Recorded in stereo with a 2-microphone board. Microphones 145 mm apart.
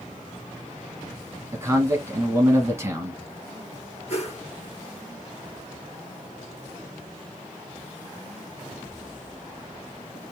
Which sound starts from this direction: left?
A whoosh, at 4.1 s.